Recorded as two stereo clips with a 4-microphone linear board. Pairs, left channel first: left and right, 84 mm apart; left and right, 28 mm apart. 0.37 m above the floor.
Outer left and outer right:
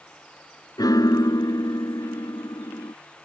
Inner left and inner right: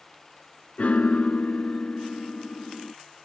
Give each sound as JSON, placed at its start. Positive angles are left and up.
{"t": 0.8, "sound": "a piano", "side_deg": 50}